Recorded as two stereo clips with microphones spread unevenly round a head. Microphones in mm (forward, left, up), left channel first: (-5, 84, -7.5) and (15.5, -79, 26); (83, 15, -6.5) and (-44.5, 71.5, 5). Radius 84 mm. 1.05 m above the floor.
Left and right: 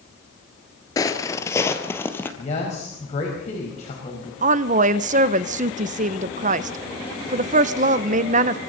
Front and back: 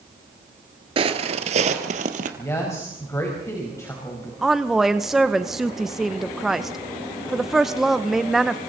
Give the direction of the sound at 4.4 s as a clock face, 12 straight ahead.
4 o'clock.